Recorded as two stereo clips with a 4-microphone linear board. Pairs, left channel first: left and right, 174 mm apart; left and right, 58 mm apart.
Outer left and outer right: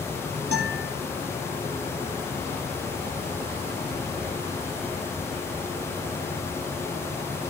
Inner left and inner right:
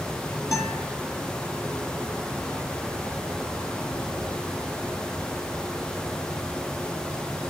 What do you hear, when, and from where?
0.5 s a guitar: 60° left (ahead or behind), 9.5 m